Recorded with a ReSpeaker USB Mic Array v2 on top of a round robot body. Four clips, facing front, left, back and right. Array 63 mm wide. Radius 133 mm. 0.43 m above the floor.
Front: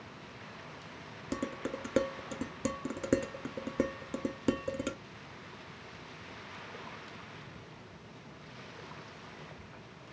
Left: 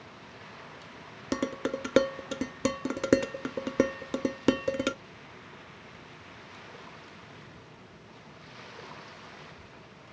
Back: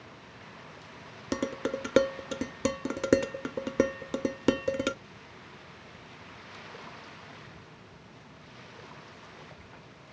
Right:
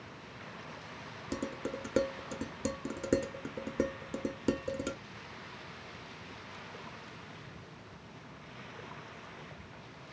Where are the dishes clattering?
130° left, 0.7 m.